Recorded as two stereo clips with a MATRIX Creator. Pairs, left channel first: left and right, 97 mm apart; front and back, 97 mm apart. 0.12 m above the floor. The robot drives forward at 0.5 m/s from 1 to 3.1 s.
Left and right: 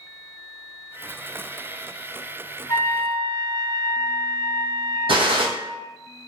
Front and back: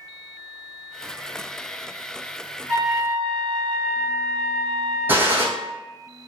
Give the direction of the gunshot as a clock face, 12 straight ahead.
4 o'clock.